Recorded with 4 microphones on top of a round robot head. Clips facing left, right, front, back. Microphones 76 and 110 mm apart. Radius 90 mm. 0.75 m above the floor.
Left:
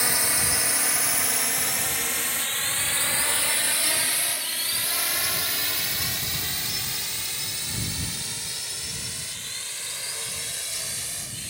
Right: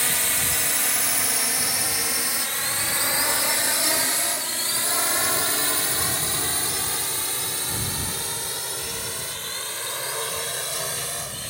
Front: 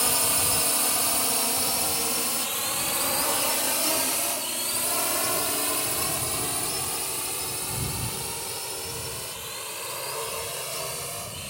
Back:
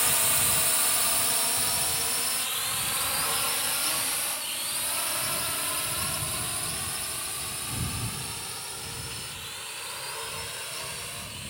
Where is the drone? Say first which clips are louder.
Even, front 3 dB; 25° left; by 11.5 s 50° right.